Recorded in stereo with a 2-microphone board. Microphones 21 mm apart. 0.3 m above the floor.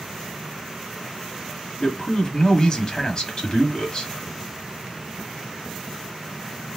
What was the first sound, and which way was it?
A man speaking, 35° left (ahead or behind).